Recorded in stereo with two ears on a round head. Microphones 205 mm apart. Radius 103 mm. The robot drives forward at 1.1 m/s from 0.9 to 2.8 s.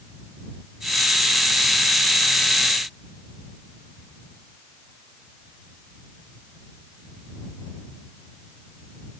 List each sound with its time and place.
Only background noise.